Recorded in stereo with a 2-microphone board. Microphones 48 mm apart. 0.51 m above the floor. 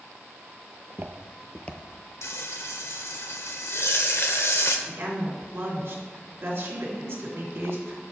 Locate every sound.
0.7 s footsteps: 60° right (ahead or behind), 0.9 m; by 1.8 s 35° left (ahead or behind), 0.8 m
2.2 s frying: 65° left (ahead or behind), 0.7 m
4.9 s a woman speaking: 55° right (ahead or behind), 2 m